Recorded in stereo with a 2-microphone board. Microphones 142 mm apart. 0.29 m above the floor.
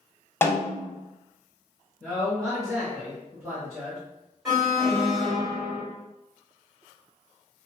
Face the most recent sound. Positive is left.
turn(degrees=-5)  # may be behind; listen again after turning